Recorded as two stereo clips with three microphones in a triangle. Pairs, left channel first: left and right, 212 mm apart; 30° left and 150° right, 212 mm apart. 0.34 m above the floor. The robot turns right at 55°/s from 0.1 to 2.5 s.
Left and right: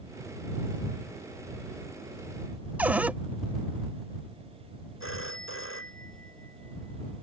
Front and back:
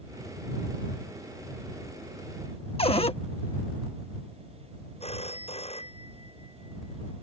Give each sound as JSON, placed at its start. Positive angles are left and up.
{"t": 2.8, "sound": "a cupboard door", "azimuth_deg": -15}
{"t": 5.0, "sound": "a phone ringing", "azimuth_deg": 90}